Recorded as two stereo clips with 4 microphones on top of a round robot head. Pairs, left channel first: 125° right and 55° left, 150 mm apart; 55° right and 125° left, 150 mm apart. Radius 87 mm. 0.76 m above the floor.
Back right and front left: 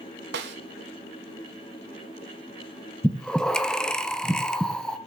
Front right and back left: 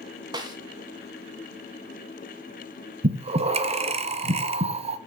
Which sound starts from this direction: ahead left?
A snare drum, at 0.3 s.